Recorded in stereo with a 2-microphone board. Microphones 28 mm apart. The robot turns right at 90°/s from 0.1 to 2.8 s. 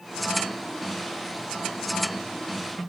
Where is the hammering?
I don't hear hammering.